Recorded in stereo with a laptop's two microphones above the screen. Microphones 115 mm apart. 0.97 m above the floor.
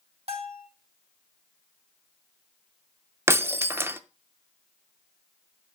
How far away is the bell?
About 1.7 m.